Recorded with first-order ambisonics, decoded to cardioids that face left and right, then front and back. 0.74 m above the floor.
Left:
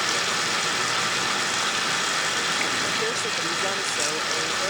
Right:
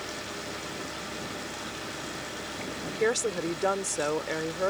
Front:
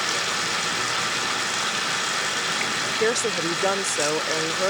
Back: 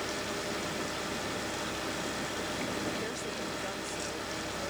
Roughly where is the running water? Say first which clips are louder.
Left 13 dB, front 11 dB; ahead left.